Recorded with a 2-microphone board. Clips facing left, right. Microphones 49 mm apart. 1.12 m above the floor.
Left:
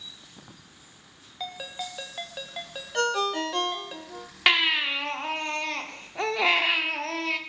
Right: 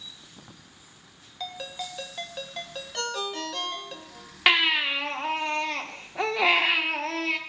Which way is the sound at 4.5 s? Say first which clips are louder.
Right 1 dB; 5° right (ahead or behind).